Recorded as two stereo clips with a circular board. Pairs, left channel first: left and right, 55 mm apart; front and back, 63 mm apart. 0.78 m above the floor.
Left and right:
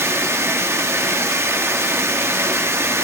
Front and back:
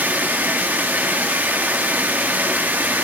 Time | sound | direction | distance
0.0 | running water | 120° right | 0.9 m